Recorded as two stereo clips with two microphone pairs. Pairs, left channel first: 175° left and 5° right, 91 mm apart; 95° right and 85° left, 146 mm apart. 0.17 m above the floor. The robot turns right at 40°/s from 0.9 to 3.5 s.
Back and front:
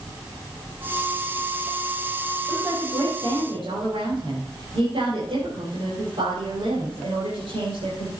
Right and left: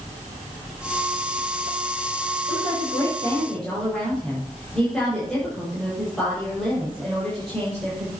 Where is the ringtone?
No ringtone in this recording.